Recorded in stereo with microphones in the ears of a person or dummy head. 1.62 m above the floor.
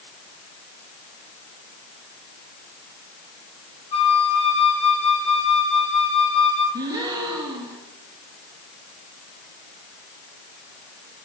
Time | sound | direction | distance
3.9 | a flute | 35° left (ahead or behind) | 9 m
6.7 | a gasp | 25° right (ahead or behind) | 2.5 m